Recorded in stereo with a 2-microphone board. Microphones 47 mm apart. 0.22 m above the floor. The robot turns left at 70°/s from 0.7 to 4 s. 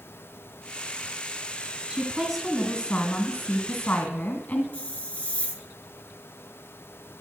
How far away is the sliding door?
I don't hear a sliding door.